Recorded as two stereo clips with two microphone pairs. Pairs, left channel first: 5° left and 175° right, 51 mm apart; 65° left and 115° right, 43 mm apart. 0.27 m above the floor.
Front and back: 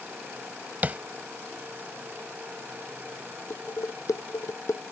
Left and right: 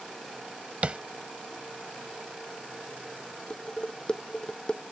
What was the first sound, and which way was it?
Tapping, 150° right.